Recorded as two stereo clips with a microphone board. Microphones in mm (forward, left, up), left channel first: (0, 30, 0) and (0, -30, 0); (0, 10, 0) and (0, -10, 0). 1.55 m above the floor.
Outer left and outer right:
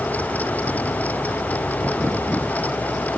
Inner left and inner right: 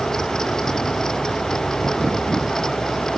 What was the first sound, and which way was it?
Only background noise.